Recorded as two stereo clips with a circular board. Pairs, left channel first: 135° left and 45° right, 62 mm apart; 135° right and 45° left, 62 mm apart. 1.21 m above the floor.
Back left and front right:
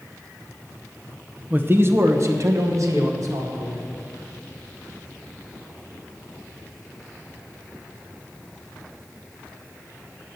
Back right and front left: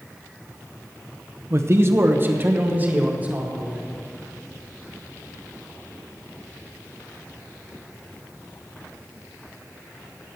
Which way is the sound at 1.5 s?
10° left.